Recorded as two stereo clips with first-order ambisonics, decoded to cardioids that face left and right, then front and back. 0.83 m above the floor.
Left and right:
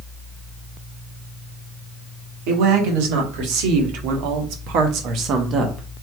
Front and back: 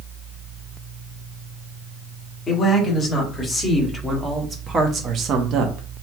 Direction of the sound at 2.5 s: 70° right.